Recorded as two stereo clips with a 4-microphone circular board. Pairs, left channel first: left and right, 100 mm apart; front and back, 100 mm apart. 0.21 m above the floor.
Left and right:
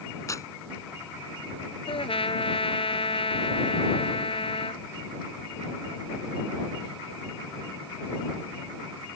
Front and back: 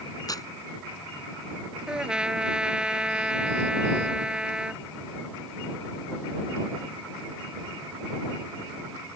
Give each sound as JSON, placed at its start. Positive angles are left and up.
{"t": 0.3, "sound": "tearing paper", "azimuth_deg": 40}
{"t": 1.9, "sound": "a trumpet", "azimuth_deg": 100}